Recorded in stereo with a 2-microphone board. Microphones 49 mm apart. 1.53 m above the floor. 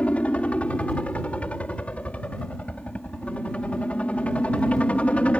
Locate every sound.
0.0 s a helicopter: 25° left (ahead or behind)